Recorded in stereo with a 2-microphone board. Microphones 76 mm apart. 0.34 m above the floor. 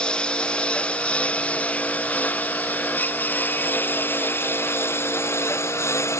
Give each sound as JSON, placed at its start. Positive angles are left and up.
{"t": 0.0, "sound": "a lawn mower", "side_deg": 15}